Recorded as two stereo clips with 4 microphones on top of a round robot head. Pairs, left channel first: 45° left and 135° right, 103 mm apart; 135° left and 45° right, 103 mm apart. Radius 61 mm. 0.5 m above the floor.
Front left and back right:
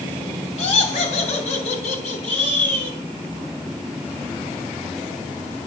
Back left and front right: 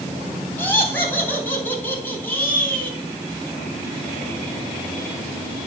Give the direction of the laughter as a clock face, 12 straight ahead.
10 o'clock.